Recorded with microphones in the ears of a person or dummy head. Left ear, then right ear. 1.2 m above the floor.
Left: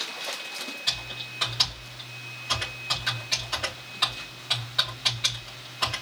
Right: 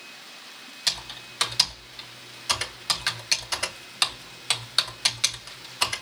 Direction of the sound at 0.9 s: 70° right (ahead or behind).